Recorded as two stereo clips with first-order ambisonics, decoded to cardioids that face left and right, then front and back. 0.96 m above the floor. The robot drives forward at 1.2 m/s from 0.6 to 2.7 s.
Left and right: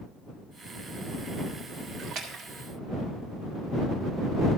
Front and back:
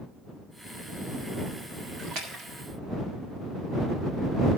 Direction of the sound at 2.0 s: 140° right.